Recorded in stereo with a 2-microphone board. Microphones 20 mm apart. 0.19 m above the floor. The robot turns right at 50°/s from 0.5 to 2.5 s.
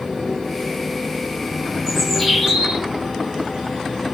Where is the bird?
165° left, 8.5 m; by 2.8 s 165° right, 8.5 m.